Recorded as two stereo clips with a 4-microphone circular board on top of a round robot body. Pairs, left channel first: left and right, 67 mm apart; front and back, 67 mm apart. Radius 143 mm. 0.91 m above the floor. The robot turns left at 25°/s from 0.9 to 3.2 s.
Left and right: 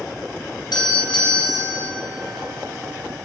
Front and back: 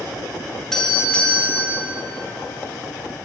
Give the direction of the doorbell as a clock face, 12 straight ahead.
9 o'clock.